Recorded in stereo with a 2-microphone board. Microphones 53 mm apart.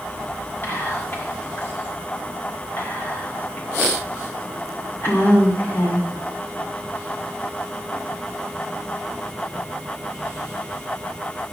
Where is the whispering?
45° left (ahead or behind), 1.8 m.